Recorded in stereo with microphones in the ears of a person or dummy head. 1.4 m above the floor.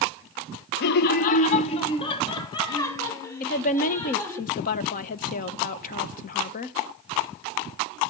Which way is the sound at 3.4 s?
45° left (ahead or behind).